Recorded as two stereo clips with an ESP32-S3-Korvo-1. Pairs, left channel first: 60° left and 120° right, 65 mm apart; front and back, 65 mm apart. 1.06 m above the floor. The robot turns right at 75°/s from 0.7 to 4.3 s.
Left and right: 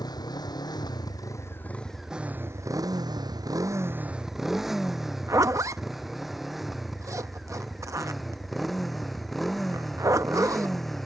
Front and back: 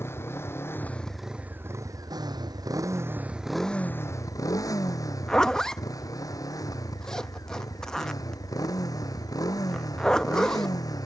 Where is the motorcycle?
50° left; by 11.1 s 30° right.